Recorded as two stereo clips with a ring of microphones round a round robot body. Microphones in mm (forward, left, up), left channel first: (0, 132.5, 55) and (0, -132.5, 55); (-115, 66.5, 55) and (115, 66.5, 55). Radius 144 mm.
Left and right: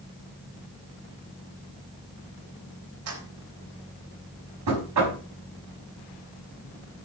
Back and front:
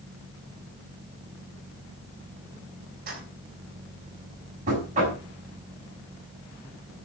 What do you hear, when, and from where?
3.1 s keys jangling: 60° right, 3.5 m
4.7 s knocking: 65° right, 5.5 m